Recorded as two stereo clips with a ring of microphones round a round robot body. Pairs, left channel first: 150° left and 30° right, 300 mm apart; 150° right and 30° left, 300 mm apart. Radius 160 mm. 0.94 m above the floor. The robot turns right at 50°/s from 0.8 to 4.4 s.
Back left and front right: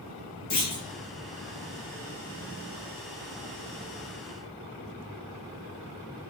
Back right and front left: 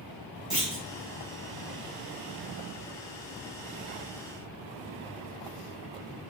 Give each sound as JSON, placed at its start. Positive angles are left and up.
{"t": 0.5, "sound": "a clunk", "azimuth_deg": 120, "distance_m": 1.5}